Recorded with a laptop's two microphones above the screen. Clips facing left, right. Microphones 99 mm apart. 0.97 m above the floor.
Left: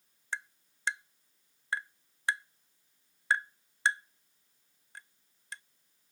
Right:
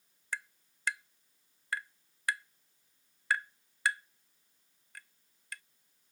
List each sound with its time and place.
0.3 s tapping: 25° left (ahead or behind)